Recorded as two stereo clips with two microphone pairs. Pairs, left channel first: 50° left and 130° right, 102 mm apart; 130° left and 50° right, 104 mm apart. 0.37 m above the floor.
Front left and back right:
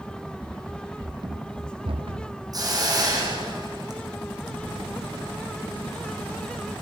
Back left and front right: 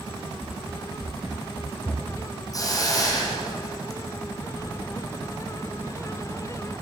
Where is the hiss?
Straight behind, 6.5 m.